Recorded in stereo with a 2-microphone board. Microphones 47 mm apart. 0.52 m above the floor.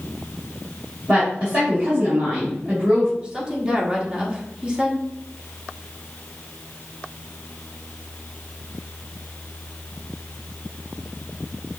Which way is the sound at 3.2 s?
20° right (ahead or behind).